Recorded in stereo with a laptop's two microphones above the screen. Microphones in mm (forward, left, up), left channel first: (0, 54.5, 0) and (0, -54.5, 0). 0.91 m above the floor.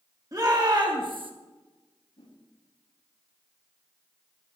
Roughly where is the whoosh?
Left.